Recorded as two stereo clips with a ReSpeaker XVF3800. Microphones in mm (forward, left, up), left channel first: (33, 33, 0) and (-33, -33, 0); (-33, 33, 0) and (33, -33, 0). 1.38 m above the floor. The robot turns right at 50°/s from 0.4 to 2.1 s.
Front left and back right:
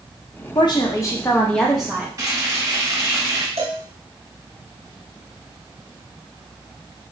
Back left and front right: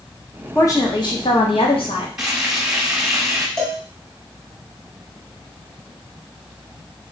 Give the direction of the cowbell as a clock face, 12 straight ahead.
5 o'clock.